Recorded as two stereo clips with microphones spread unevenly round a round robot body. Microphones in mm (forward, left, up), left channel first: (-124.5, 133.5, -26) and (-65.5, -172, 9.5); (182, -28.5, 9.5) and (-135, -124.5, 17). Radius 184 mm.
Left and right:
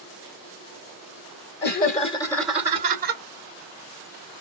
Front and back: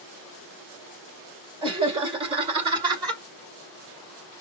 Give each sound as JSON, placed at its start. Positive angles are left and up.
{"t": 1.6, "sound": "laughter", "azimuth_deg": 125, "distance_m": 1.7}